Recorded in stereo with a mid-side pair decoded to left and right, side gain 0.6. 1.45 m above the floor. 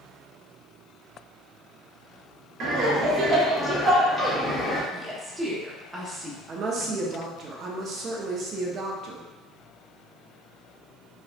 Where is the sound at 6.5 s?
45° right, 0.7 m.